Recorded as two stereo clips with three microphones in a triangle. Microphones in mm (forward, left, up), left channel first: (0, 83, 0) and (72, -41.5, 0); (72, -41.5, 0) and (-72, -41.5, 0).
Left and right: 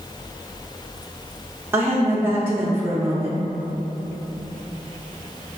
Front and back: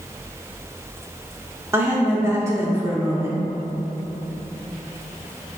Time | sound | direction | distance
1.7 | a woman speaking | 120° right | 0.7 m